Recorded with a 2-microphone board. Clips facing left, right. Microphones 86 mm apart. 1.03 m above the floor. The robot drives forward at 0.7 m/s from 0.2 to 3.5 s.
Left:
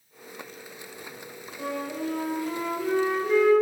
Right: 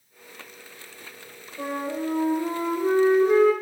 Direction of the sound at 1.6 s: 45° right (ahead or behind).